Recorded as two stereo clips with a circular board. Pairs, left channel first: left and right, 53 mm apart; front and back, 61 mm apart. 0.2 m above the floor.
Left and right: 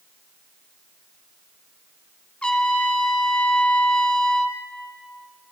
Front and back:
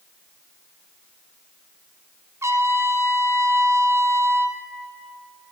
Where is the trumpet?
155° left, 1.0 m.